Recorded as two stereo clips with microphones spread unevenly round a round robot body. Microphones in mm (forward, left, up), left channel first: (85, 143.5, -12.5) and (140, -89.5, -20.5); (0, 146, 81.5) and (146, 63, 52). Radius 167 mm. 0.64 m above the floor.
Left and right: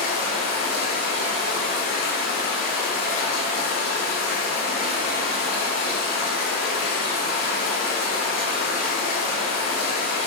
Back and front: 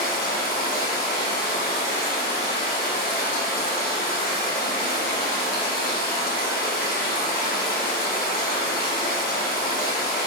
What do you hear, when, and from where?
0.0 s running water: 115° left, 1.6 m